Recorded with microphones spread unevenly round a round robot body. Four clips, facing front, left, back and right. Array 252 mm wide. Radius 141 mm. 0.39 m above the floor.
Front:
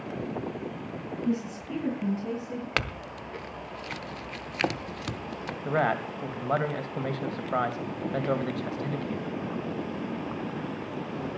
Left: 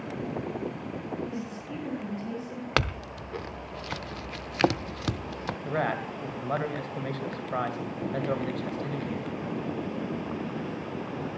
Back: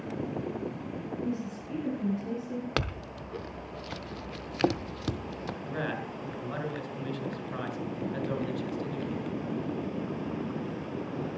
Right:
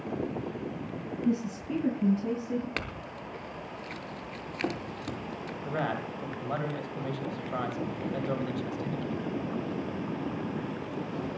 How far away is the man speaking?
About 3 m.